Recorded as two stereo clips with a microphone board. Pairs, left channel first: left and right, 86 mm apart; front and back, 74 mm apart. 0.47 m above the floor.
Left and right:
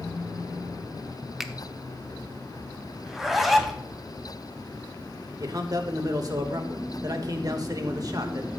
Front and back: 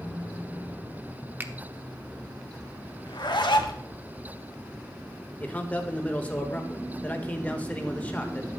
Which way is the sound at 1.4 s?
170° right.